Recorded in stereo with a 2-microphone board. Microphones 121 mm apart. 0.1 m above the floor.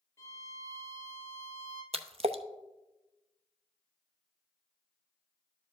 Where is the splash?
60° right (ahead or behind), 0.7 m.